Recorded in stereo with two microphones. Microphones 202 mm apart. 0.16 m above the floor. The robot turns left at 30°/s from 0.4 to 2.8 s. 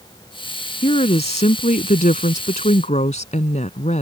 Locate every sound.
0.8 s a woman speaking: 130° left; by 4.0 s 70° left